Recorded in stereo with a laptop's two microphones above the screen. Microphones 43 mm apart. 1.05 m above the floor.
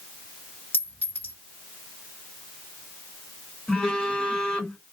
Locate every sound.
0.7 s a clink: 55° left (ahead or behind), 1.4 m
3.7 s a phone buzzing: 15° left (ahead or behind), 1.0 m